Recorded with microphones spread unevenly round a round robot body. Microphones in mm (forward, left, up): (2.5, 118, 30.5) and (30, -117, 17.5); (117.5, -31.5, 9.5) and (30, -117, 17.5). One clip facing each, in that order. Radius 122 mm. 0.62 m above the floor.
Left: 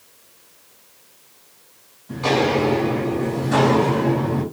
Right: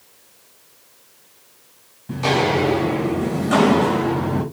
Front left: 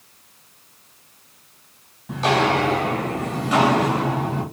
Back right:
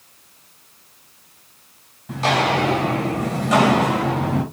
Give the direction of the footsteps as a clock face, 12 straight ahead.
2 o'clock.